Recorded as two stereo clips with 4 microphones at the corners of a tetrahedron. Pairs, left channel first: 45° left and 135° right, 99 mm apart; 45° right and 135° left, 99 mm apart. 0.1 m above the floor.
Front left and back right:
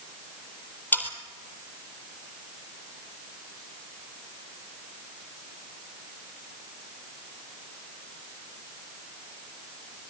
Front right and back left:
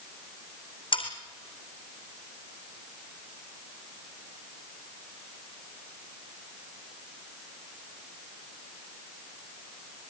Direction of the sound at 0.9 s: 25° right.